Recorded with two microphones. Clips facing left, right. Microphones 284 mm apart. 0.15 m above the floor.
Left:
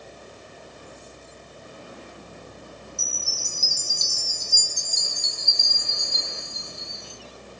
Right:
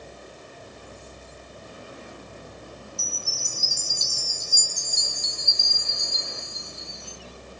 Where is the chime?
35° left (ahead or behind), 1.6 m.